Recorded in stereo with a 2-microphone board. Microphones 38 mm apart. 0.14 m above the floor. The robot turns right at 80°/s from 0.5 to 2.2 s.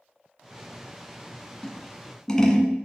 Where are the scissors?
20° left (ahead or behind), 1.4 m; by 2.7 s 15° left (ahead or behind), 1.4 m.